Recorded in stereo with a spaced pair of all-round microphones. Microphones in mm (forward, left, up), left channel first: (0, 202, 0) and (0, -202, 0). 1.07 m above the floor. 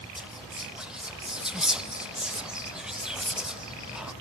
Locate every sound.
0.2 s whispering: centre (ahead or behind), 0.8 m